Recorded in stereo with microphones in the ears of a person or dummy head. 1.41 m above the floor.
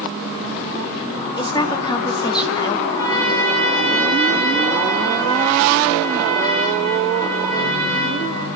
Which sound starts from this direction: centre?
A trumpet, at 2.9 s.